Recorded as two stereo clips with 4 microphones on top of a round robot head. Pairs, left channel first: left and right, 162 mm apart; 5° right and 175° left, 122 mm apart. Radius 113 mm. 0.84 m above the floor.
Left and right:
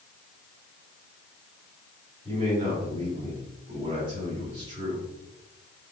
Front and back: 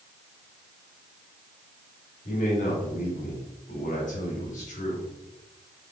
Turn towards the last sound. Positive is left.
turn(degrees=-25)